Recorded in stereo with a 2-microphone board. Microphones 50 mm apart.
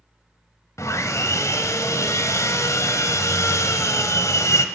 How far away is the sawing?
About 1.0 m.